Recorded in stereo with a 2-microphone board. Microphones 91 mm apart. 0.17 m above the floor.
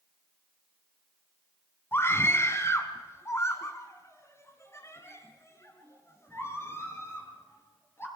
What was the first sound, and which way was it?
A scream, 25° left (ahead or behind).